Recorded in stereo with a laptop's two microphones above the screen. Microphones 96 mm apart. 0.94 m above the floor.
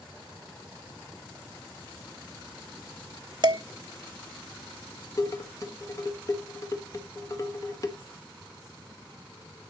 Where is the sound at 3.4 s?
50° right (ahead or behind), 0.6 m.